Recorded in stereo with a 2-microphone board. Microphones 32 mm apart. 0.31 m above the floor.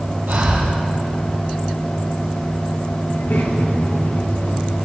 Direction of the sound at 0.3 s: 85° right.